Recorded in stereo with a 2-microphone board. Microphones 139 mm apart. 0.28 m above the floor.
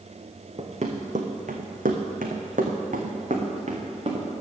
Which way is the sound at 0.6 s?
45° right (ahead or behind).